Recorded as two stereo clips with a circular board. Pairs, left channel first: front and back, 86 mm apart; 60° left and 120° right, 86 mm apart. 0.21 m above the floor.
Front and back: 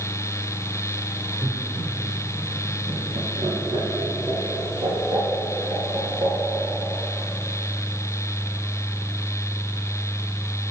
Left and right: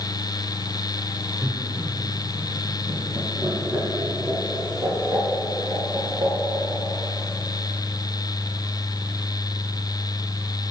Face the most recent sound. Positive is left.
turn(degrees=-160)